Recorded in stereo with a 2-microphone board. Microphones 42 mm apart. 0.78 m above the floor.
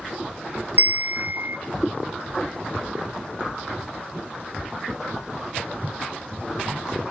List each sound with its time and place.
0.8 s a bell: 55° right (ahead or behind), 0.5 m